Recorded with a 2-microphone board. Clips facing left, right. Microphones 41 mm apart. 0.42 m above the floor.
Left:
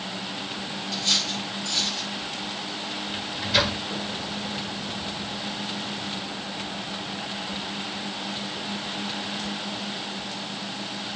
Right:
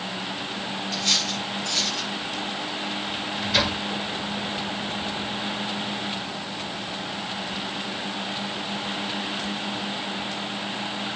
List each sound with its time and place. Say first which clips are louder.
0.9 s cutlery clinking: even; 35° right (ahead or behind), 5 m
3.1 s a microwave: left 1 dB; centre (ahead or behind), 1.3 m